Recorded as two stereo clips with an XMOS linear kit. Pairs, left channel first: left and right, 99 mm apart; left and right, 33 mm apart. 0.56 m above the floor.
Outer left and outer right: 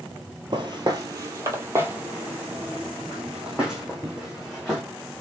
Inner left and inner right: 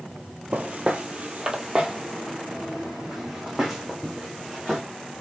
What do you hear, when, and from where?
0.5 s footsteps: 50° right (ahead or behind), 0.9 m; by 4.8 s centre (ahead or behind), 2.5 m